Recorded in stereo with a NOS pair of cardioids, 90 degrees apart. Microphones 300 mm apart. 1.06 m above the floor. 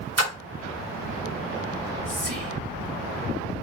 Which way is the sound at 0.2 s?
60° right.